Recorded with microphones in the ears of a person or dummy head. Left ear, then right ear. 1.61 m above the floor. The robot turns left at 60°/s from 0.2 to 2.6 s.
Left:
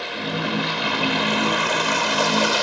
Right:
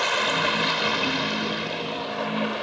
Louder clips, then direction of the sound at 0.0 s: Right 4 dB; 140° right.